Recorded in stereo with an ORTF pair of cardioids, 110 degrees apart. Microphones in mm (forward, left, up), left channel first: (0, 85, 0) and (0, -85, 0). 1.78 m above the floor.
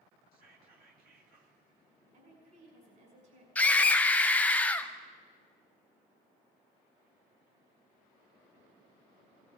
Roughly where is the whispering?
Ahead right.